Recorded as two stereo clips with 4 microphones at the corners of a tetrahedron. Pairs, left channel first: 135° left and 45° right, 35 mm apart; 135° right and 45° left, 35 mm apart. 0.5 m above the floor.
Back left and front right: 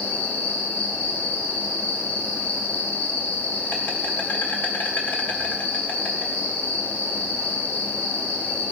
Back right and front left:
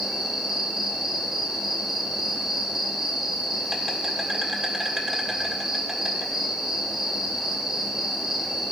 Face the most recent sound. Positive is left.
turn(degrees=120)